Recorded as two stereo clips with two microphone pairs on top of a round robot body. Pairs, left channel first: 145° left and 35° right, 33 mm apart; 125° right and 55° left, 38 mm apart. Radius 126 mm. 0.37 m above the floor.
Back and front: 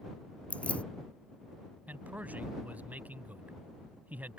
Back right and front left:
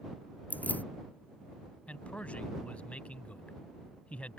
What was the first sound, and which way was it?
Keys jangling, 160° right.